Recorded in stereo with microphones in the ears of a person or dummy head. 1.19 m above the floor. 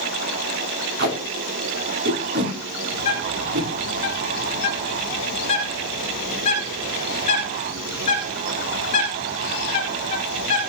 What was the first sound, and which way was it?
Tape being pulled, 55° right (ahead or behind).